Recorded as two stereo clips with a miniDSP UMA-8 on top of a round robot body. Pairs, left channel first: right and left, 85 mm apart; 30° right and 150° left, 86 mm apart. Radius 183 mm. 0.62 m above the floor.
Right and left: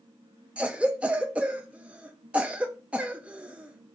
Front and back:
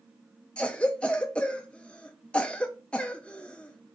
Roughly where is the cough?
Ahead left.